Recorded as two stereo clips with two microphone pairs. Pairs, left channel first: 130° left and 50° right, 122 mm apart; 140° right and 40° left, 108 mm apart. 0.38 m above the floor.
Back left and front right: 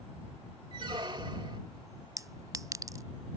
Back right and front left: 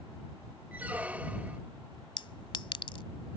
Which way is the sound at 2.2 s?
105° right.